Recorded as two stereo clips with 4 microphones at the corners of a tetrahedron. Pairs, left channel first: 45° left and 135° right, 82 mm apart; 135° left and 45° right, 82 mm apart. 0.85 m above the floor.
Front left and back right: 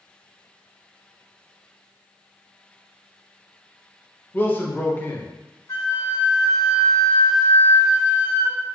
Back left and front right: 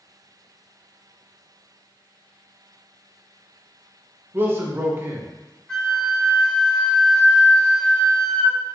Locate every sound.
4.3 s a man speaking: 5° right, 0.8 m
5.7 s a flute: 65° left, 1.0 m